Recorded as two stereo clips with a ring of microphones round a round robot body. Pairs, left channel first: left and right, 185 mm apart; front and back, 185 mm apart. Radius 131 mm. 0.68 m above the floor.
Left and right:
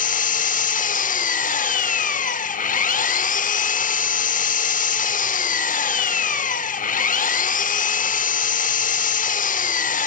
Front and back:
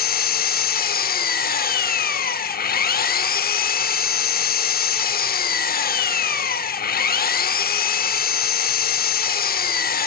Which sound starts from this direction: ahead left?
An engine running, at 0.0 s.